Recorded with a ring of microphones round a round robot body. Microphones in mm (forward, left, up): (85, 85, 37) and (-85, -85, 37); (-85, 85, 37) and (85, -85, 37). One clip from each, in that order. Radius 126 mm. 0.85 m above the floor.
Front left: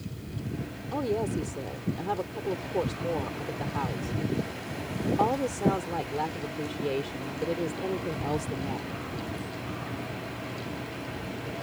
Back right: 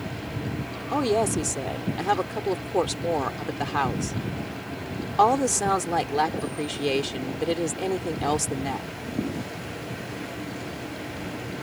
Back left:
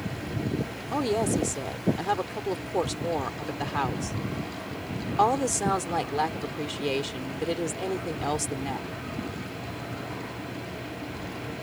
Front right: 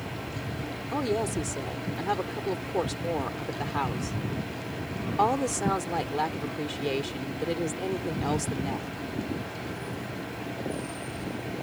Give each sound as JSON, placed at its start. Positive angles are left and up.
{"t": 0.9, "sound": "a woman speaking", "azimuth_deg": -150}